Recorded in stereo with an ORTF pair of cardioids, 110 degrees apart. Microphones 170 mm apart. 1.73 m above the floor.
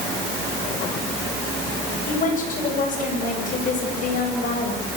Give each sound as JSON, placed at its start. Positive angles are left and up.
{"t": 2.1, "sound": "a woman speaking", "azimuth_deg": 50, "distance_m": 9.5}